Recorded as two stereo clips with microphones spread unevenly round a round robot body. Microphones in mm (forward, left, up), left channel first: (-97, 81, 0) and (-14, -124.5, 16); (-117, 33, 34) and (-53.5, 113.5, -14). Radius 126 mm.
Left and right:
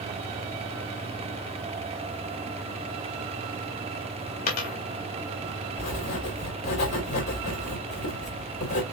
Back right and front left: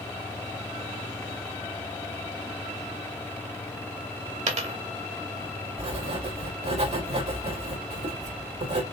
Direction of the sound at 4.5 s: 50° left.